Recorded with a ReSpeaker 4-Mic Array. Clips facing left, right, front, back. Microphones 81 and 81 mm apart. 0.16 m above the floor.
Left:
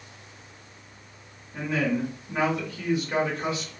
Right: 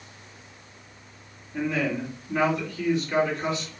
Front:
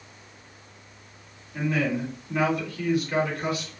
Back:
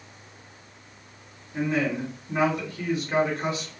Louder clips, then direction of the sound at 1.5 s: Even, even; 150° left.